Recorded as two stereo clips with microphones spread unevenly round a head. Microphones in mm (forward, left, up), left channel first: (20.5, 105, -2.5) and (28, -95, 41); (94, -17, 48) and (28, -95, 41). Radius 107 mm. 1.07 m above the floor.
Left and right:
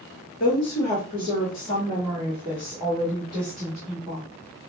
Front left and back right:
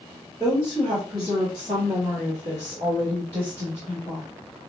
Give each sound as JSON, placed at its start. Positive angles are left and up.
{"t": 0.4, "sound": "a woman speaking", "azimuth_deg": 140, "distance_m": 1.5}